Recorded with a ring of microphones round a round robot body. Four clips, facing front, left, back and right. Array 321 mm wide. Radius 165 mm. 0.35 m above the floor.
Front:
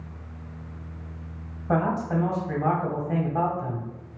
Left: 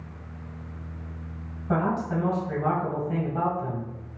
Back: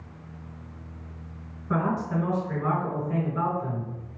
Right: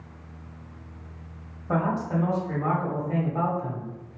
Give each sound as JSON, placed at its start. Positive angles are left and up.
{"t": 1.7, "sound": "a man speaking", "azimuth_deg": -10, "distance_m": 1.9}